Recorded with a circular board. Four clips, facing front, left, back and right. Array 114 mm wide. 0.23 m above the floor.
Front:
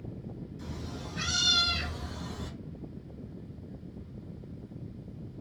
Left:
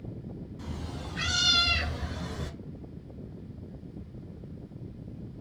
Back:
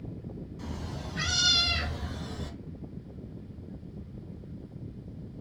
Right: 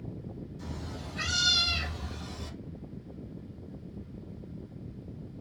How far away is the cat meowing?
About 1.4 m.